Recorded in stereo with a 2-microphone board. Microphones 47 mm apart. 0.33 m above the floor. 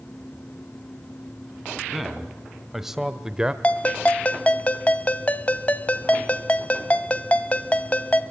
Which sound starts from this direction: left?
A ringtone, at 3.6 s.